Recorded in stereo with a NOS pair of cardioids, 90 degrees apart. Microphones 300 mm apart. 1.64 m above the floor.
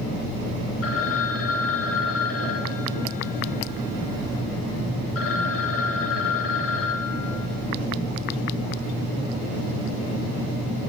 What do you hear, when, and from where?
0.8 s a phone ringing: 50° left, 7 m